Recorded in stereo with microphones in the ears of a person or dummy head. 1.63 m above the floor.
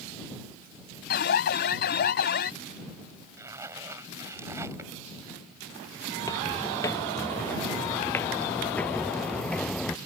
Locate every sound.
1.1 s an alarm: 55° left (ahead or behind)
3.4 s a zipper: 15° right (ahead or behind)
6.2 s footsteps: 20° left (ahead or behind); by 10.0 s 5° left (ahead or behind)